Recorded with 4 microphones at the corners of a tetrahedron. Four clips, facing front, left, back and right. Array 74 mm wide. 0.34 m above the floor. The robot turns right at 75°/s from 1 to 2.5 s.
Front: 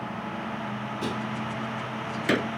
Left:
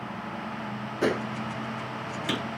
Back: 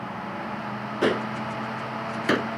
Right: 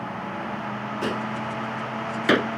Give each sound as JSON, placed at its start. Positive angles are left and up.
{"t": 1.0, "sound": "a gunshot", "azimuth_deg": 160}